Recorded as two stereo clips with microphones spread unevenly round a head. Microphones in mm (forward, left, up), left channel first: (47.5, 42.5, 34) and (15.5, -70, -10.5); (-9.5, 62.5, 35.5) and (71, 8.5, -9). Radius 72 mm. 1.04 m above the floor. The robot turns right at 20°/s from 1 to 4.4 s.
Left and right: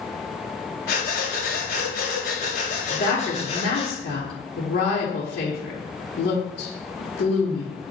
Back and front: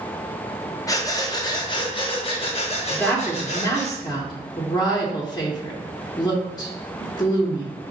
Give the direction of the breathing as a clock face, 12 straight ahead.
9 o'clock.